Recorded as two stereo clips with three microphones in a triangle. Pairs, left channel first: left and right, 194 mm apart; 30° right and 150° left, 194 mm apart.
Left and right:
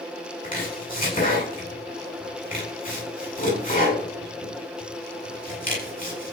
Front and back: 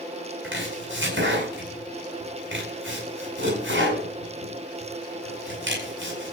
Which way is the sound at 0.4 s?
135° left.